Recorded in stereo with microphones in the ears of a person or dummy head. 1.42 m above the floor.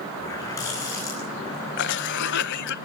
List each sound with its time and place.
0.2 s a running tap: 15° left (ahead or behind), 9 m
1.8 s a cough: 65° left (ahead or behind), 0.9 m